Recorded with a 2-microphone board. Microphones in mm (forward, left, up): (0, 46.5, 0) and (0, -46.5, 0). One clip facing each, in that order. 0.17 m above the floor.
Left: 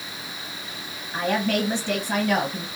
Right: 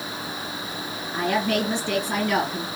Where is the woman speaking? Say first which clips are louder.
Even; 30° left (ahead or behind), 2 m.